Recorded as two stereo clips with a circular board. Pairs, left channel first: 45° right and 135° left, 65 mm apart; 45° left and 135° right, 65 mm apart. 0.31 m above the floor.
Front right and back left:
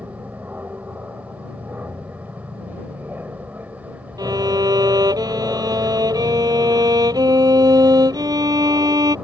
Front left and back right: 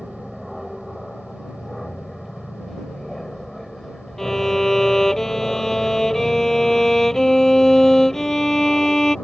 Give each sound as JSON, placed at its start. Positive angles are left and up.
{"t": 0.0, "sound": "an aircraft", "azimuth_deg": 140}
{"t": 4.2, "sound": "a violin", "azimuth_deg": 125}